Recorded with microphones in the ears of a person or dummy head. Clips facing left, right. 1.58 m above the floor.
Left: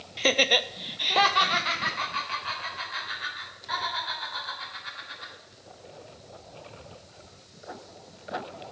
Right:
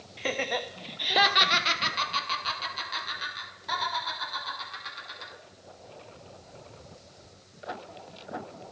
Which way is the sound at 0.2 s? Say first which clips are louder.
Left 5 dB; 60° left (ahead or behind).